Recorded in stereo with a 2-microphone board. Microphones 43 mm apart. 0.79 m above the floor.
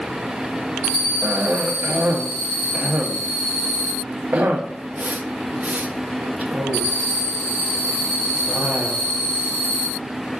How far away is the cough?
About 0.5 m.